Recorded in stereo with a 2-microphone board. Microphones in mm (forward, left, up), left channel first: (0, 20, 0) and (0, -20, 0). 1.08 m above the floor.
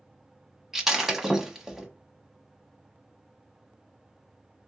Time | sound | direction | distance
0.7 | breaking glass | 10° right (ahead or behind) | 1.1 m